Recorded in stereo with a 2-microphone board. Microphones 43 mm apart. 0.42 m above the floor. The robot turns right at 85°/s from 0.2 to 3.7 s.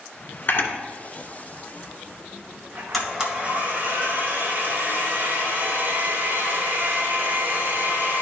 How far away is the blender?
About 1.7 m.